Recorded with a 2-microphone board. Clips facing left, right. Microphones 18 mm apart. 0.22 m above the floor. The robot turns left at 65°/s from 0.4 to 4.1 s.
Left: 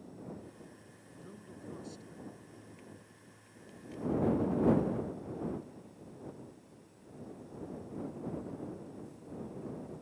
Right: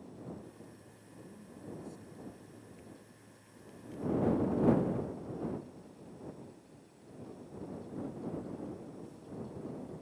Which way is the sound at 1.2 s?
95° left.